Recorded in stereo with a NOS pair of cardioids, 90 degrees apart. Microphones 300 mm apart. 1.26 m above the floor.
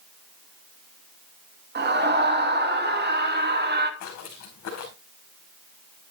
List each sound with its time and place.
1.8 s a scream: 35° right, 2.5 m
4.0 s footsteps: 65° left, 4.5 m